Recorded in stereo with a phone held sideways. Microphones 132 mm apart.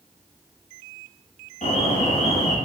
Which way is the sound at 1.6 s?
65° left (ahead or behind).